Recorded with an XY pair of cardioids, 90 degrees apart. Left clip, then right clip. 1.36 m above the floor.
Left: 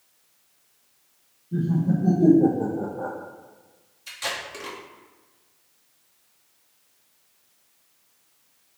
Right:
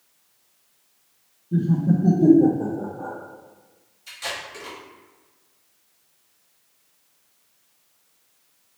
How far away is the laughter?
About 0.8 m.